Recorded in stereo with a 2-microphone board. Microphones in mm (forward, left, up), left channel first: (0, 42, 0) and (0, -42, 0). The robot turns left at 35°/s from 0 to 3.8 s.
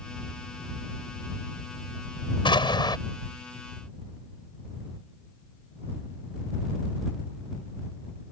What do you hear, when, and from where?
2.5 s an explosion: 80° left; by 3.0 s 60° left (ahead or behind)